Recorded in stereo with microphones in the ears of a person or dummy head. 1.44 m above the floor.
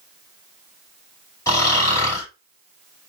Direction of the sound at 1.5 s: 20° left (ahead or behind).